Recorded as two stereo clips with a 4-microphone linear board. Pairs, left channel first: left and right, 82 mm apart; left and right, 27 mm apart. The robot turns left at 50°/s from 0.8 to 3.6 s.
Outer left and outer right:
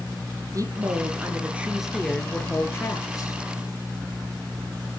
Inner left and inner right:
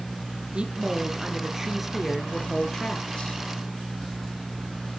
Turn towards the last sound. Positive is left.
turn(degrees=95)